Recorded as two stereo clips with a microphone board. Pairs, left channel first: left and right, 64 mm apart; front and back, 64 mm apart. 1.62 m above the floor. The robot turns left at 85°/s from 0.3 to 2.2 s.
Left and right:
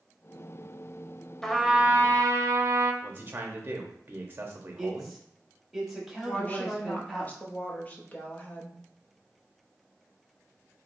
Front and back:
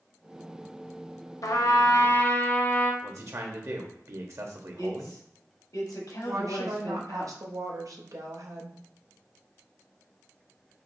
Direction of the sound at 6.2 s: 155° left.